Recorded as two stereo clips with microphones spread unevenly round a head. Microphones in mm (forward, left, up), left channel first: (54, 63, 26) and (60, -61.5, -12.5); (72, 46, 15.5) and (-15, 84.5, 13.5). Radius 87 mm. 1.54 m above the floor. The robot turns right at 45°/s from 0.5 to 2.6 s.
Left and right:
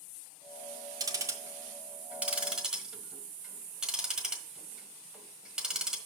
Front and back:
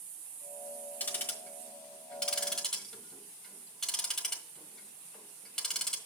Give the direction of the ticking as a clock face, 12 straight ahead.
1 o'clock.